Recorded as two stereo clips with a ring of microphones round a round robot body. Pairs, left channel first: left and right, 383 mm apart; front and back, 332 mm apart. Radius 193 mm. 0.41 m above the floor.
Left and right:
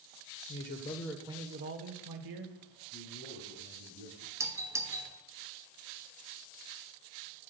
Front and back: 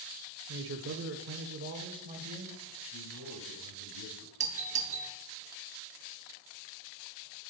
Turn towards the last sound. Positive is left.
turn(degrees=-160)